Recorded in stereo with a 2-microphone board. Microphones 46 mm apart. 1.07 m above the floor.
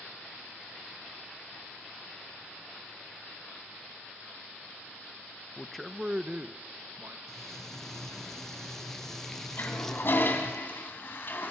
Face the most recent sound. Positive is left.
turn(degrees=50)  # may be behind; listen again after turning